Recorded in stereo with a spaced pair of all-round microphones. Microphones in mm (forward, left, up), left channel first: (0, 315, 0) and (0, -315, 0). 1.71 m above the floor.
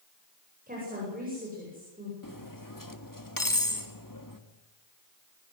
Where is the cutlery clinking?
30° left (ahead or behind), 1.7 m.